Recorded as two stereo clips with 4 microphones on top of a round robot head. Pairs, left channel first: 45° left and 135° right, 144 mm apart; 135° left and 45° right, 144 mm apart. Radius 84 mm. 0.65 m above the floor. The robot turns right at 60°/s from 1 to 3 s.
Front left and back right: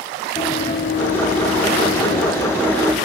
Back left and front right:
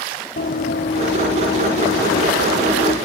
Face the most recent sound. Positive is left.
turn(degrees=135)